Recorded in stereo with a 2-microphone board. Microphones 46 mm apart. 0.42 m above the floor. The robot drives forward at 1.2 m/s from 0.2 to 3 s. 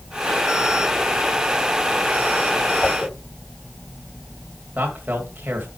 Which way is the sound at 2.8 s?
30° left (ahead or behind).